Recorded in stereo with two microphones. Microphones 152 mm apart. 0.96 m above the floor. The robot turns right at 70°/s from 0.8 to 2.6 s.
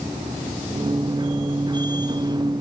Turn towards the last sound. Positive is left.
No sound to turn to.